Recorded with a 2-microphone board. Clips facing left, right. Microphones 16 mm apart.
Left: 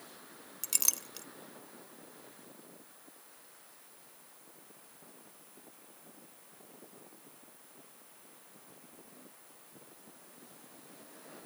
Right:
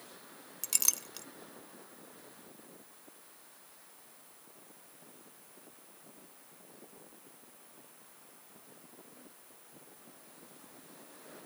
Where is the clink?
Centre (ahead or behind), 0.5 m.